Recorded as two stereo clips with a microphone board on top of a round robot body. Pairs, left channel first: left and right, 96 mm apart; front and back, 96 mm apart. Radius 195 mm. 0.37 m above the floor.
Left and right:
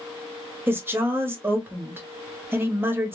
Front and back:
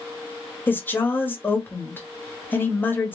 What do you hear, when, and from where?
0.7 s a woman speaking: 50° right, 1.3 m